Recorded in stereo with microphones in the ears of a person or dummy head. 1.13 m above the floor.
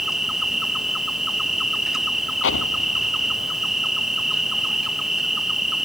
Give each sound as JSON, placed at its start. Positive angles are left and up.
{"t": 0.0, "sound": "an insect", "side_deg": 0}
{"t": 2.4, "sound": "an explosion", "side_deg": 75}